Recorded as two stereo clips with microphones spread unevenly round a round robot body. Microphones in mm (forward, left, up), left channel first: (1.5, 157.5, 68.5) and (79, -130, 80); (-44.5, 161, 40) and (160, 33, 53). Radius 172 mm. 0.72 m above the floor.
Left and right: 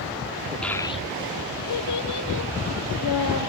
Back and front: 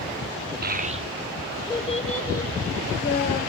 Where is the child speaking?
20° left, 1.1 m; by 3.4 s 115° left, 2 m.